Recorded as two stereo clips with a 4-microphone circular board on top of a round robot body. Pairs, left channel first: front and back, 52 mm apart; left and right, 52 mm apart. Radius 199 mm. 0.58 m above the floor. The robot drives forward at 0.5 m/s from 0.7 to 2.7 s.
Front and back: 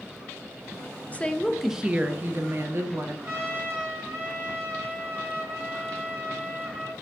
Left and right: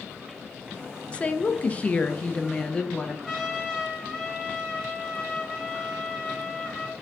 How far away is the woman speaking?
About 0.6 m.